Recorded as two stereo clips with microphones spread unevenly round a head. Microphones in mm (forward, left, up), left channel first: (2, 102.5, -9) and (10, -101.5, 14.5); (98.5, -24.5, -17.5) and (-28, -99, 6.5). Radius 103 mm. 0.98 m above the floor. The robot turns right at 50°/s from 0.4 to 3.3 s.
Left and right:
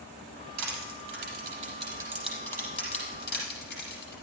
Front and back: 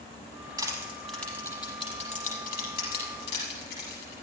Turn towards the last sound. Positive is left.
turn(degrees=50)